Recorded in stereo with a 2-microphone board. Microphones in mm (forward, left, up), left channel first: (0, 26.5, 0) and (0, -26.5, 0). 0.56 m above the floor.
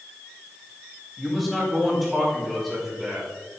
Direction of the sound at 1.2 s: Centre (ahead or behind).